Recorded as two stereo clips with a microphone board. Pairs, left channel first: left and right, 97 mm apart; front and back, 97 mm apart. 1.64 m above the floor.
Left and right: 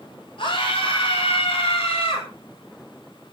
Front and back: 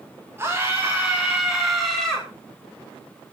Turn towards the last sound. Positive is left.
turn(degrees=80)